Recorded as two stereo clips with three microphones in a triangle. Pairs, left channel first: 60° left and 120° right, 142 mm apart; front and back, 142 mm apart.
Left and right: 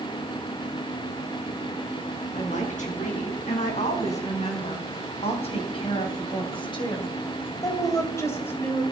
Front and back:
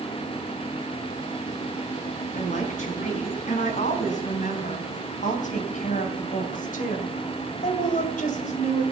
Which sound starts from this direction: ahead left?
A woman speaking, at 2.3 s.